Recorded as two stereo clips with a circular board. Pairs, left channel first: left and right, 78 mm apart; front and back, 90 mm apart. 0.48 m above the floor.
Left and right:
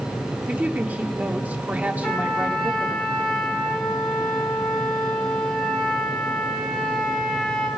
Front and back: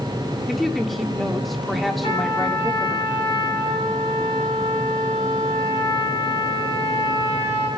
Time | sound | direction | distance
0.5 | a woman speaking | 90° right | 1.1 m
2.0 | a trumpet | 10° left | 3.5 m